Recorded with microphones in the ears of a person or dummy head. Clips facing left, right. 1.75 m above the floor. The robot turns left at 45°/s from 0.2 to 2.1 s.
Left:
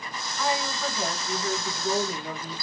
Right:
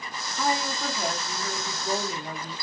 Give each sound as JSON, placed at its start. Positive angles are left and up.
{"t": 0.4, "sound": "a woman speaking", "azimuth_deg": -145, "distance_m": 0.9}